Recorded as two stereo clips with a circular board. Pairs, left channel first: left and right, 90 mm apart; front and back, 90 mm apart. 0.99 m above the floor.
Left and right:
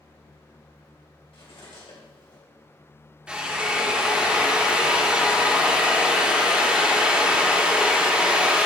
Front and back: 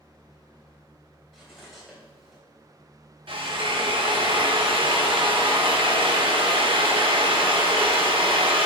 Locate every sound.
1.3 s cutlery clinking: 90° left, 3 m
3.3 s a drill: 170° right, 1.2 m